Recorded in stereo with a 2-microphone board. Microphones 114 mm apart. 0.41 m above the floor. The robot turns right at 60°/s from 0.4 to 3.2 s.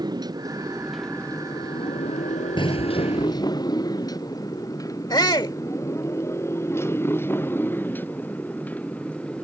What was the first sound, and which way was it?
A motorcycle, 35° right (ahead or behind).